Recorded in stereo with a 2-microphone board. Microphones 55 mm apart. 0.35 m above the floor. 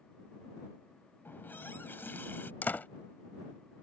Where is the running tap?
40° left (ahead or behind).